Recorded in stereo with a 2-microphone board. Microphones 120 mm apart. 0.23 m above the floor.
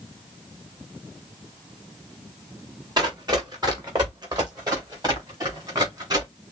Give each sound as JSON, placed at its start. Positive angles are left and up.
{"t": 3.0, "sound": "running footsteps", "side_deg": -35, "distance_m": 2.0}